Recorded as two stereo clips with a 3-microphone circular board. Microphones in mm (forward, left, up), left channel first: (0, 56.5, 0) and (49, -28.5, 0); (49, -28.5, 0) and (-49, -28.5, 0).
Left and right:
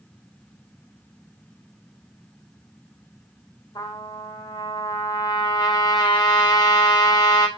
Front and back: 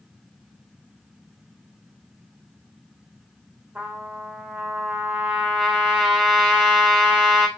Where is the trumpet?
100° left, 1.2 m.